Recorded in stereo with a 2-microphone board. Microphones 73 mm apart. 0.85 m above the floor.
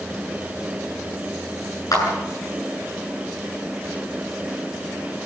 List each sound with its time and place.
1.9 s a clap: 55° left (ahead or behind), 8 m